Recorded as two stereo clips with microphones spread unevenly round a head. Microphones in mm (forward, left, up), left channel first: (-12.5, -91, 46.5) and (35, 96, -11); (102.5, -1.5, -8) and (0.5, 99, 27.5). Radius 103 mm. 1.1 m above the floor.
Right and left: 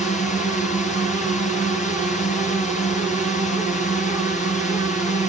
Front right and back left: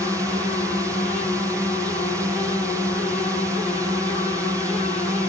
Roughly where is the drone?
Behind right.